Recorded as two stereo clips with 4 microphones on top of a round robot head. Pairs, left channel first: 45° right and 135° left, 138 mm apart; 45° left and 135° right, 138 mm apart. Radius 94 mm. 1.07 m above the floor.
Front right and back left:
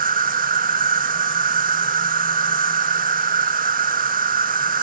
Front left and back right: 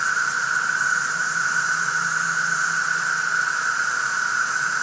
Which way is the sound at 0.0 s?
135° left.